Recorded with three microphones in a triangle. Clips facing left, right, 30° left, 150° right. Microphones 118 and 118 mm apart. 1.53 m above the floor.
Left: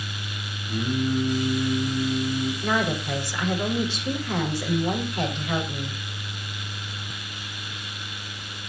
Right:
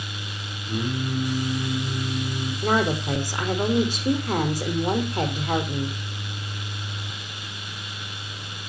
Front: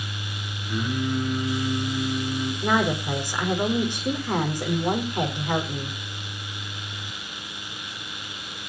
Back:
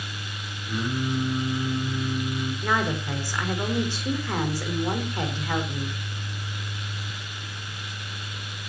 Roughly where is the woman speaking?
Ahead right.